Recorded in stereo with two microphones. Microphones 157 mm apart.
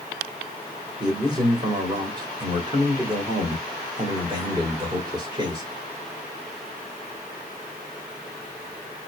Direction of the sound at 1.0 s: 30° right (ahead or behind).